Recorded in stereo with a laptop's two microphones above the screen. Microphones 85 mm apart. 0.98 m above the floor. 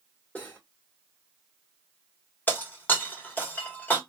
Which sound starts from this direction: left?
Breaking glass, at 2.5 s.